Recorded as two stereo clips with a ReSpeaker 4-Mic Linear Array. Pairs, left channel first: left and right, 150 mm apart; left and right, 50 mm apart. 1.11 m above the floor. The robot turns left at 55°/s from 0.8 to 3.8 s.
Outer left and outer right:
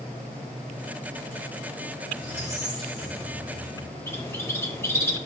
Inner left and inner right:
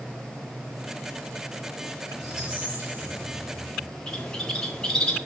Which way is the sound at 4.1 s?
15° left (ahead or behind).